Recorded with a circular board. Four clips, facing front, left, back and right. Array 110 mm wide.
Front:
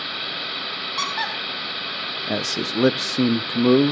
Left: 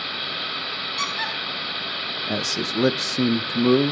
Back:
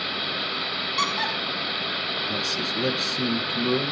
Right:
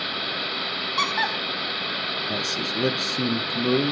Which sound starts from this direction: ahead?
A man speaking, at 2.3 s.